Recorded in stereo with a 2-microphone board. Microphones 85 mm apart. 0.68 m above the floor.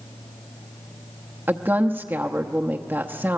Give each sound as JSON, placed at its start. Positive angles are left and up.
{"t": 1.5, "sound": "a woman speaking", "side_deg": -25, "distance_m": 0.8}